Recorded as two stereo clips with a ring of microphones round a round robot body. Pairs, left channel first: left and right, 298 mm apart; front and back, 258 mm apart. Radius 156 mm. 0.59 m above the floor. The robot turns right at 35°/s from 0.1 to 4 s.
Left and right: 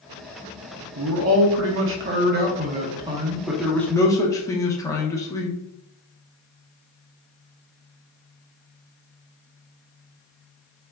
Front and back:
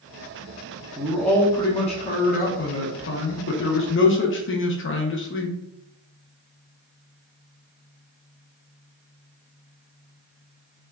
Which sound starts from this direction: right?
A man speaking, at 1.0 s.